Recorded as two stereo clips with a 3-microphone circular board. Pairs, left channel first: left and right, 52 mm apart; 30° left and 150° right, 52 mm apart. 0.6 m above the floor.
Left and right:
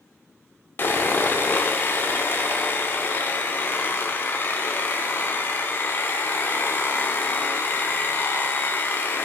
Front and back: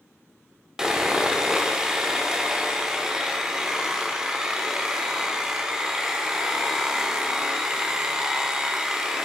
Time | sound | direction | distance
0.8 | sawing | 135° left | 1.0 m